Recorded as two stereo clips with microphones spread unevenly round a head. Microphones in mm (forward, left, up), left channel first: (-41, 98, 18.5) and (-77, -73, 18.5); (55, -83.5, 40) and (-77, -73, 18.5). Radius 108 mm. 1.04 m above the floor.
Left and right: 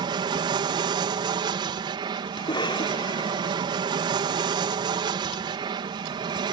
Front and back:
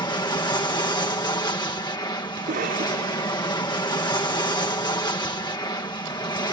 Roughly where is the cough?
Behind left.